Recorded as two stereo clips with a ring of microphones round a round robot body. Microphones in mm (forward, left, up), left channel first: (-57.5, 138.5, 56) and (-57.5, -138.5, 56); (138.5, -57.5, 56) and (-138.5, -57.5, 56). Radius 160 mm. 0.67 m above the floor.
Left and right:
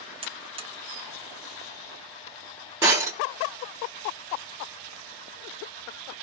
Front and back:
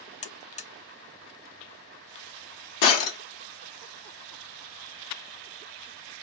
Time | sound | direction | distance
0.2 | a buzzer | 40° right | 0.5 m
2.8 | breaking glass | 10° right | 1.0 m